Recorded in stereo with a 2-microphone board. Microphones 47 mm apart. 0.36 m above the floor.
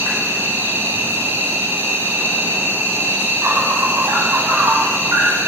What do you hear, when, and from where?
0.0 s an insect: 65° right (ahead or behind), 0.8 m